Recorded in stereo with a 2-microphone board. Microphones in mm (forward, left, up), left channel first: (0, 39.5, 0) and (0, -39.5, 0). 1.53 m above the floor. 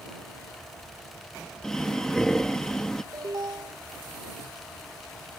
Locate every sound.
1.6 s breathing: 10° left (ahead or behind)
3.1 s an alarm: 60° right (ahead or behind)